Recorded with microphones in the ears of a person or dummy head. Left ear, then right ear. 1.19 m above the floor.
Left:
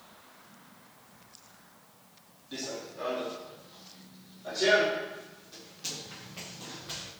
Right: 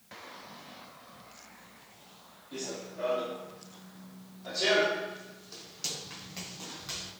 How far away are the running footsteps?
About 3 m.